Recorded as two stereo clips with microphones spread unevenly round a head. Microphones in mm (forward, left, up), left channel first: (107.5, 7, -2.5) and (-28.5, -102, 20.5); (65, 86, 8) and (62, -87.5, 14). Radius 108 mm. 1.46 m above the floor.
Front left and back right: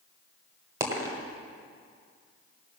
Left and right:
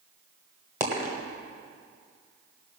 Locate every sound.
0.8 s a dropped coin: 140° right, 1.3 m